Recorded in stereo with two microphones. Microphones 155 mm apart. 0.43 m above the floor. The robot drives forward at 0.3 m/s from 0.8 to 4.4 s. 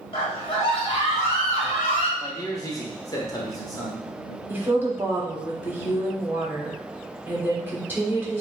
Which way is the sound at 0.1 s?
40° left (ahead or behind).